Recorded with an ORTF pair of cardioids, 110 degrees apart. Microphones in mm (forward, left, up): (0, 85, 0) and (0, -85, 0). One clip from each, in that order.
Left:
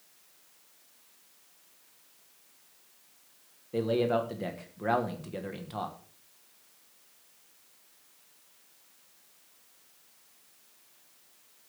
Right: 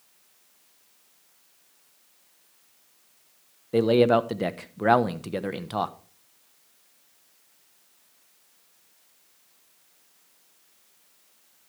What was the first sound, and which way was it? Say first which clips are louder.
A man speaking: right 8 dB; 50° right.